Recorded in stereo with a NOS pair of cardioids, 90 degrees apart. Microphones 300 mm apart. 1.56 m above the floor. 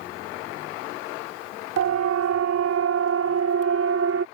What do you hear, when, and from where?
1.8 s a siren: 60° right; by 4.3 s 50° right